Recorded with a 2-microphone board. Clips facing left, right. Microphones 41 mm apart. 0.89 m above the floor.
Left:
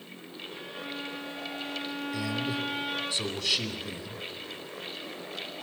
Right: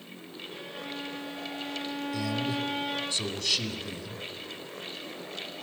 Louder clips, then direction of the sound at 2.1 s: Right 1 dB; centre (ahead or behind).